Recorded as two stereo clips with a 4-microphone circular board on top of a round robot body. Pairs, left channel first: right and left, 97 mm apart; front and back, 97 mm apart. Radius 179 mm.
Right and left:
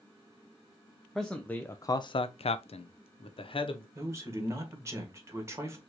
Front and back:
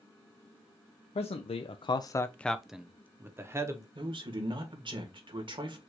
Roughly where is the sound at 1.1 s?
Ahead.